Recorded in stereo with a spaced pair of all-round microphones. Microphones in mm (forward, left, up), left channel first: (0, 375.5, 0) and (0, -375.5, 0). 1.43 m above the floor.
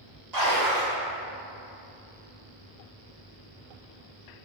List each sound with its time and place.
0.3 s a splash: 60° right (ahead or behind), 1.9 m